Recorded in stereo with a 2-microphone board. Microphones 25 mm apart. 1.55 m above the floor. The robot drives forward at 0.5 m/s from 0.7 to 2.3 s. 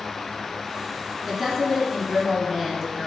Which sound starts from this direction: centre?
A woman speaking, at 1.3 s.